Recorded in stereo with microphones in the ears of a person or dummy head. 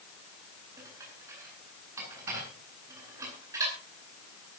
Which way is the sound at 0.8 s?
15° right (ahead or behind).